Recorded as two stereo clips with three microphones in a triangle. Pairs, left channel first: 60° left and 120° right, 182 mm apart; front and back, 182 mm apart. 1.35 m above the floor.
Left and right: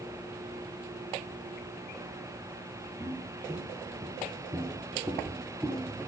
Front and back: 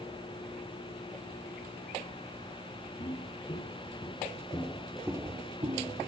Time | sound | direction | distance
3.0 | footsteps | 50° right | 3 m